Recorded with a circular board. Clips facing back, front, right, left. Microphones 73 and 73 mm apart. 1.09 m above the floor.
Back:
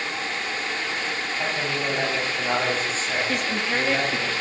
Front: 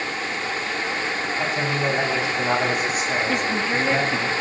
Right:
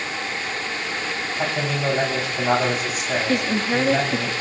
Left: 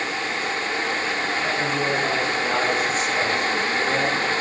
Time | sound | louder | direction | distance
1.4 | a man speaking | front 3 dB, right 2 dB | 75° right | 9 m
3.3 | a woman speaking | front 3 dB, right 1 dB | 90° right | 2 m